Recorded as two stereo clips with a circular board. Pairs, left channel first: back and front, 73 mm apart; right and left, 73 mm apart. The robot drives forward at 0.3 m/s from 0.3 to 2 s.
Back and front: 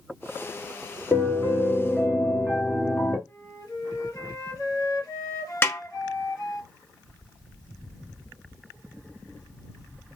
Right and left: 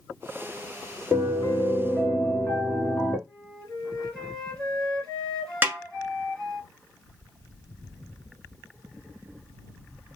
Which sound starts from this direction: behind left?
A snare drum, at 5.6 s.